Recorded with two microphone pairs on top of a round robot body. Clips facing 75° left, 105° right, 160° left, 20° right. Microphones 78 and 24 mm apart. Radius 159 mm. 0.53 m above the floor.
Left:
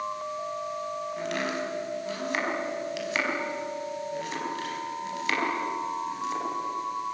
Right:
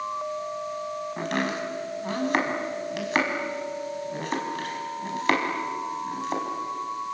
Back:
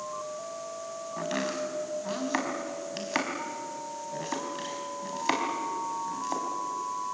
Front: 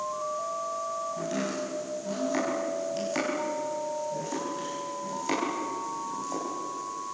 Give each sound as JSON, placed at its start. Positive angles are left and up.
{"t": 1.2, "sound": "chopping", "azimuth_deg": -150, "distance_m": 4.5}